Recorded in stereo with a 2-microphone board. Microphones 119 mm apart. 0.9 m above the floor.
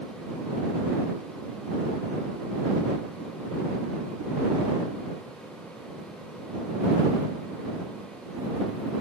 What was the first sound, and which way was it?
Only background noise.